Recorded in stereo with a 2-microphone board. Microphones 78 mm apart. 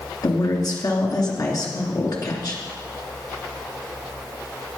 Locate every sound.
0.2 s a woman speaking: 55° left (ahead or behind), 2.5 m